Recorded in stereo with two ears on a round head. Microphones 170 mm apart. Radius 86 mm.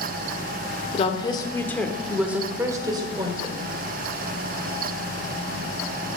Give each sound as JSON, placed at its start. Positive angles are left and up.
{"t": 0.9, "sound": "a woman speaking", "side_deg": 35, "distance_m": 1.1}